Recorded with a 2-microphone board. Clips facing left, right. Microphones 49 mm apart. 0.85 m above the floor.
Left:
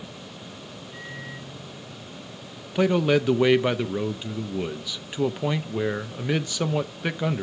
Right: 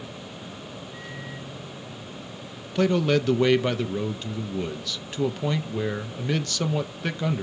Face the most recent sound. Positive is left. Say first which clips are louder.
# left 1 dB
turn(degrees=15)  # may be behind; listen again after turning